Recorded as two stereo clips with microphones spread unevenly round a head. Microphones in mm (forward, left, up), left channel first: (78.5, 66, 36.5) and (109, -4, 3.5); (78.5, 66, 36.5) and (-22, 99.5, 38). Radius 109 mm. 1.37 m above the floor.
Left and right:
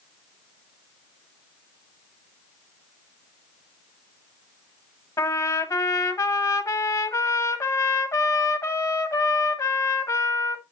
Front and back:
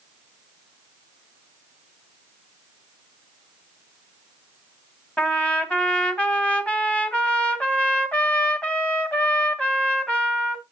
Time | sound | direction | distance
5.2 | a trumpet | 60° left | 1.6 m